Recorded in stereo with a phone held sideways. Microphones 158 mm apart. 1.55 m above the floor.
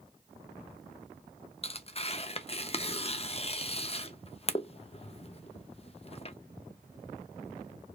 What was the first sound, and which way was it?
Tearing paper, 40° left (ahead or behind).